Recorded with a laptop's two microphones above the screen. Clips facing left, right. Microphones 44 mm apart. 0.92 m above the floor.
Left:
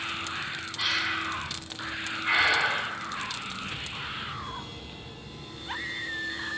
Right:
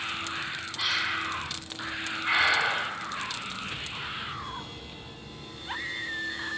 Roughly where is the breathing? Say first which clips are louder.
Even; centre.